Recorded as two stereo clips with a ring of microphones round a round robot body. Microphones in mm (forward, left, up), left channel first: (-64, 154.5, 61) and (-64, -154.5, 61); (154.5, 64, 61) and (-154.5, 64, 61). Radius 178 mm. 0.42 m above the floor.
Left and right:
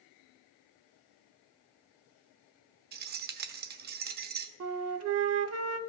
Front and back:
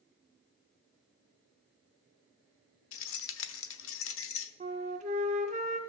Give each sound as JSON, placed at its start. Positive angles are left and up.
{"t": 2.9, "sound": "keys jangling", "azimuth_deg": -35, "distance_m": 0.8}
{"t": 4.6, "sound": "a flute", "azimuth_deg": -115, "distance_m": 0.7}